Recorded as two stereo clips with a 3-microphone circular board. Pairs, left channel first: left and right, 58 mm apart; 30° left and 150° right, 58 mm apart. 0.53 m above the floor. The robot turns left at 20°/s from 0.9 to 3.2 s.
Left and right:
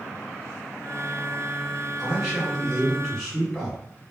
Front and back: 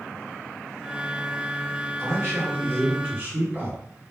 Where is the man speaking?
170° right, 1.7 m; by 3.8 s 170° left, 1.7 m.